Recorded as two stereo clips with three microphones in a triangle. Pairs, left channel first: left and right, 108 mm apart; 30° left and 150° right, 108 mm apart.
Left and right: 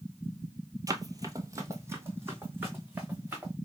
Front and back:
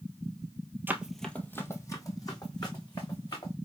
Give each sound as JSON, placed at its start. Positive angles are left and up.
{"t": 0.9, "sound": "running footsteps", "azimuth_deg": -95, "distance_m": 0.7}